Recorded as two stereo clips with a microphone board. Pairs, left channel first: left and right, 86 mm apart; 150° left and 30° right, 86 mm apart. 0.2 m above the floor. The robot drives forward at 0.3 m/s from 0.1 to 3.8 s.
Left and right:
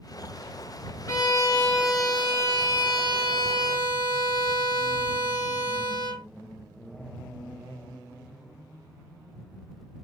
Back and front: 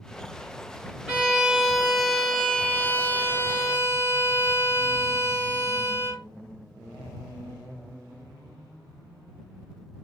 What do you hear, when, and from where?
1.1 s a violin: 50° left, 1.1 m; by 6.2 s 100° left, 0.8 m